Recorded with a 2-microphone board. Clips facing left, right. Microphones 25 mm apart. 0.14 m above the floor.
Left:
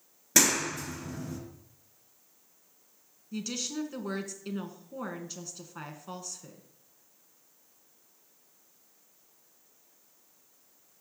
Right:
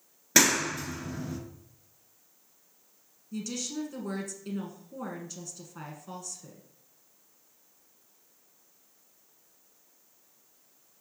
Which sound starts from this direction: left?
A woman speaking, at 3.3 s.